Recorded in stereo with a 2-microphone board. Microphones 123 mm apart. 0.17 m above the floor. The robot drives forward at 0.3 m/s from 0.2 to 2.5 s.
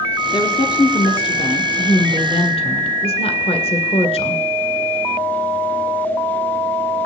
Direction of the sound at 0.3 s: 40° left (ahead or behind).